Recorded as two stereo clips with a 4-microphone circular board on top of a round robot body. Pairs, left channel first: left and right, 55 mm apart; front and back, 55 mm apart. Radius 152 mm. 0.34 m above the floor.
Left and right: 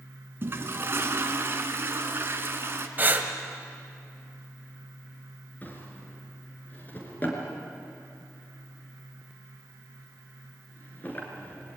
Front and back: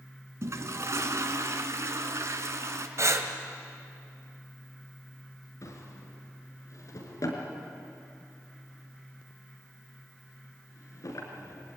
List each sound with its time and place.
0.4 s a toilet flushing: 140° right, 1.7 m
3.0 s breathing: 145° right, 2 m
5.6 s a drawer: 30° left, 4 m